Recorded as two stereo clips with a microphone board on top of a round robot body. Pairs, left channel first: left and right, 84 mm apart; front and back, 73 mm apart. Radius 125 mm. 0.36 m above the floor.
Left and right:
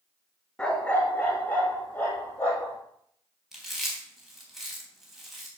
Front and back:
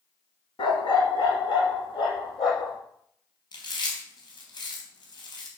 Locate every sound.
0.6 s a dog barking: 10° left, 1.6 m; by 2.8 s 20° left, 5 m
3.5 s chewing: straight ahead, 4 m